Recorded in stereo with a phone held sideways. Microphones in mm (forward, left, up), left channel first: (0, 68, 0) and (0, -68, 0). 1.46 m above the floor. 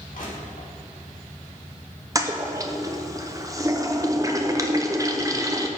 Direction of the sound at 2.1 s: 25° right (ahead or behind).